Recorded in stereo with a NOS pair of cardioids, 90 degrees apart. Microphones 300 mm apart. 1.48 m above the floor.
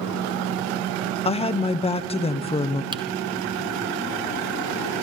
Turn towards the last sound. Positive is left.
turn(degrees=-15)